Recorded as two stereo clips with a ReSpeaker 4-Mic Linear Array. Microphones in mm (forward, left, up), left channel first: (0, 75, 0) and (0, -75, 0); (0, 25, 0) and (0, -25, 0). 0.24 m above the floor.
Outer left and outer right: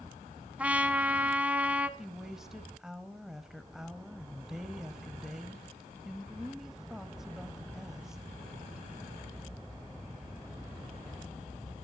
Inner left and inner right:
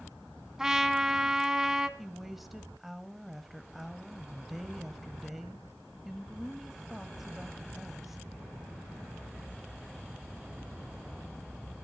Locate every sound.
0.6 s a trumpet: 10° right (ahead or behind), 0.9 m
2.0 s a woman speaking: 5° right (ahead or behind), 0.9 m